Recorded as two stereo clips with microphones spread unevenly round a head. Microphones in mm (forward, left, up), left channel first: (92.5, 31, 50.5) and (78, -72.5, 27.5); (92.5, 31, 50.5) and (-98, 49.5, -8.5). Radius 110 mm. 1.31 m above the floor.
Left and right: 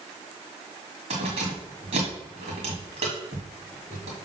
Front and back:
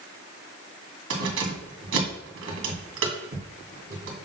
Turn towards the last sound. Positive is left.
turn(degrees=-150)